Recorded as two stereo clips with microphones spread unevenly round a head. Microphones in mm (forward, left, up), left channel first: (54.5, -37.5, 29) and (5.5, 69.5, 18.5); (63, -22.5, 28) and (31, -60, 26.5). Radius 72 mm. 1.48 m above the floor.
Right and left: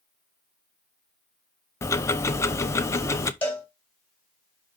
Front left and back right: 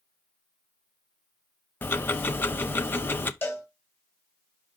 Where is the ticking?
Straight ahead, 0.9 m.